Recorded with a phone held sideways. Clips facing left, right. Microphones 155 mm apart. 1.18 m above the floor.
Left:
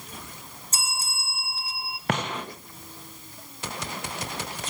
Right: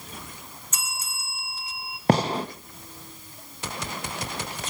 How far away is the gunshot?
About 0.8 m.